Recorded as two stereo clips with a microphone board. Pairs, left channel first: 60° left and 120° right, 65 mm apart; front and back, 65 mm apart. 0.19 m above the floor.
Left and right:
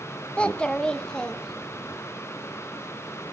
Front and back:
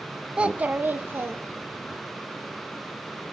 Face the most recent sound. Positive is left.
turn(degrees=140)